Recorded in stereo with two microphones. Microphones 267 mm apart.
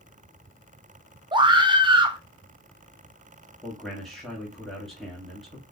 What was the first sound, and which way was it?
A scream, 20° right (ahead or behind).